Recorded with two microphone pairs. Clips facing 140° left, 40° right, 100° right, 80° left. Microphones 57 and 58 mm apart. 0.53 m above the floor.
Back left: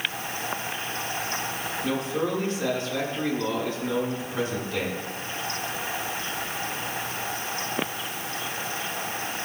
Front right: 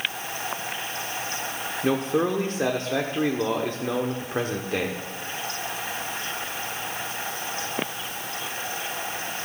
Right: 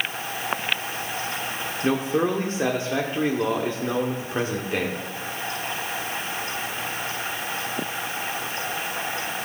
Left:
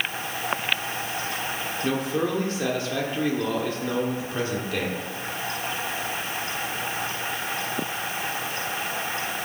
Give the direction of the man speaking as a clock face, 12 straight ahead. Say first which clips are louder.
Front right 5 dB, right 4 dB; 2 o'clock.